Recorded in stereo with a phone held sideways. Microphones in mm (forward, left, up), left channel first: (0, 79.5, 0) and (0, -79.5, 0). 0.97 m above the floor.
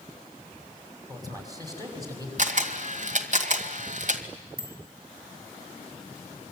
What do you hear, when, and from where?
1.1 s a man speaking: 25° right (ahead or behind), 6 m
2.4 s a camera shutter: 55° right (ahead or behind), 2.0 m
4.6 s a bicycle bell: 80° right, 5 m